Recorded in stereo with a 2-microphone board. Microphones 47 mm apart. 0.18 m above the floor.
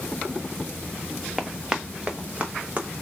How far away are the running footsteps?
About 0.7 m.